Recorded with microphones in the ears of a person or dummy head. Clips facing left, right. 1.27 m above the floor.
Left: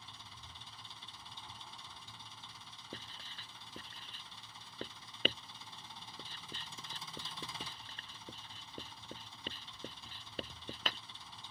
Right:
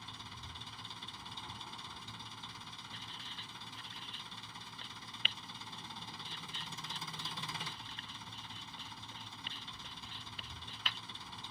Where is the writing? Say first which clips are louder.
Left 6 dB; 40° left (ahead or behind).